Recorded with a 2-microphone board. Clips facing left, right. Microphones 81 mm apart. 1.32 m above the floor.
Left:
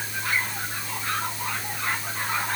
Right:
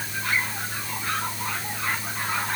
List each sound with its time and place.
Only background noise.